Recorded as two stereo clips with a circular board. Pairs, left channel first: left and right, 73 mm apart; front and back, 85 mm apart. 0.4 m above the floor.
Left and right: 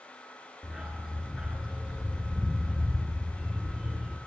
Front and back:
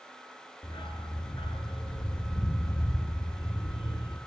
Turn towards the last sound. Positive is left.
turn(degrees=-10)